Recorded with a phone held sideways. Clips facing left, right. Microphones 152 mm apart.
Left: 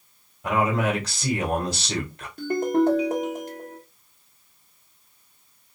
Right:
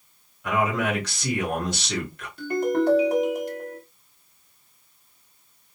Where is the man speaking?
45° left (ahead or behind), 1.7 m.